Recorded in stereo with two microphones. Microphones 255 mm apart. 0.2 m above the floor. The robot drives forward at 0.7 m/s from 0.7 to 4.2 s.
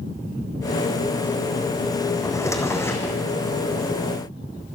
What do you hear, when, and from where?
2.2 s a drawer: 10° left (ahead or behind), 2.5 m